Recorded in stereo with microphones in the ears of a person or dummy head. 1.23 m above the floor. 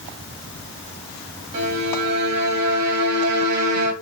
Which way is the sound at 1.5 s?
60° right (ahead or behind).